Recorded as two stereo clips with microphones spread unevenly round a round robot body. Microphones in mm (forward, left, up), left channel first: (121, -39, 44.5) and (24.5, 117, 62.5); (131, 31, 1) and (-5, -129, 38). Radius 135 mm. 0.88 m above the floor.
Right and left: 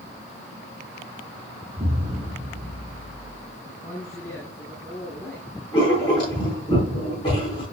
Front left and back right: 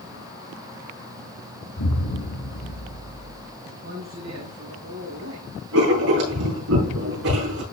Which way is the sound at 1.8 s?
55° left.